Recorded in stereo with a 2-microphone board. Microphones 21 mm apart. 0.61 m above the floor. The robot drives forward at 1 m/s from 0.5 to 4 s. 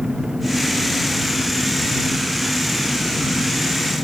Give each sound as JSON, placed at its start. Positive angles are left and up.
{"t": 0.0, "sound": "an engine running", "side_deg": -30}